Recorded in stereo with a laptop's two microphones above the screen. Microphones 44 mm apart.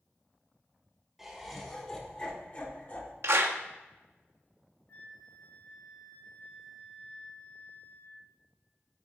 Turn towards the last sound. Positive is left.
turn(degrees=40)  # may be behind; listen again after turning